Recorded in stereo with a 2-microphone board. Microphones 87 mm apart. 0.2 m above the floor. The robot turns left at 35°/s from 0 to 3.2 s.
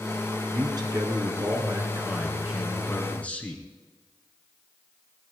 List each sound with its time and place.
0.5 s a man speaking: 105° right, 3 m; by 3.6 s 160° left, 3 m